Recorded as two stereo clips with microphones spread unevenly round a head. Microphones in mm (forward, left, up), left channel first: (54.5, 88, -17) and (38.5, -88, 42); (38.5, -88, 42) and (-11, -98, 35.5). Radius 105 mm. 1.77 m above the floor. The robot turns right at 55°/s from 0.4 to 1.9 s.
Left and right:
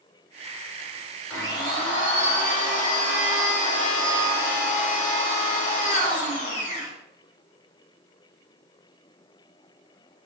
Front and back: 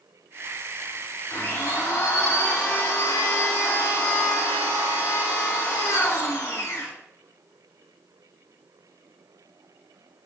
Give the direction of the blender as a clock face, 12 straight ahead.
12 o'clock.